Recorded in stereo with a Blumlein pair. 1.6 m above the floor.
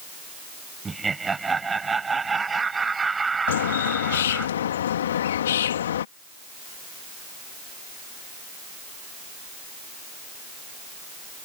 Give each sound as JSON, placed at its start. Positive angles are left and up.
{"t": 0.8, "sound": "laughter", "azimuth_deg": -15}
{"t": 3.5, "sound": "a bird", "azimuth_deg": 60}